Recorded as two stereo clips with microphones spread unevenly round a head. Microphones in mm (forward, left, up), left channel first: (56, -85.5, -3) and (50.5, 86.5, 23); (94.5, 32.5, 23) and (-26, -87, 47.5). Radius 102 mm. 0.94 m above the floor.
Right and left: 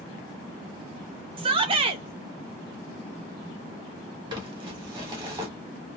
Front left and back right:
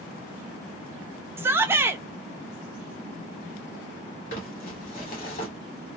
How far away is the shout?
About 0.6 m.